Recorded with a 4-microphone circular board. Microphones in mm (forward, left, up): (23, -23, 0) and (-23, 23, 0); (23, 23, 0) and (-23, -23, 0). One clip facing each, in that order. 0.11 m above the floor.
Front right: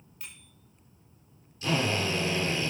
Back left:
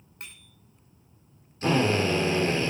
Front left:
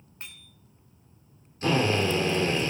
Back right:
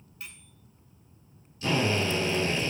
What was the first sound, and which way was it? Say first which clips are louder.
A bicycle bell: back left 2 dB, front left 1 dB; 95° left.